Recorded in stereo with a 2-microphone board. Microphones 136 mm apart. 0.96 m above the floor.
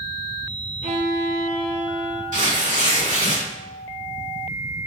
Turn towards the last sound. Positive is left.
turn(degrees=-75)  # may be behind; listen again after turning